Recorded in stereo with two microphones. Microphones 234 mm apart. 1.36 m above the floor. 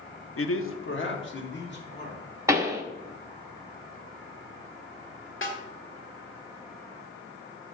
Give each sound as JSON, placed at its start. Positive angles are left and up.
{"t": 0.4, "sound": "a man speaking", "side_deg": 70, "distance_m": 0.7}
{"t": 2.5, "sound": "a pop", "side_deg": -15, "distance_m": 0.9}
{"t": 5.4, "sound": "a snare drum", "side_deg": 60, "distance_m": 1.6}